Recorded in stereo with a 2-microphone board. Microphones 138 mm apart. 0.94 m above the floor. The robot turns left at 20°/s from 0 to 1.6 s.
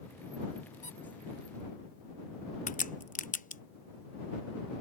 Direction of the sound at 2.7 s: 70° left (ahead or behind).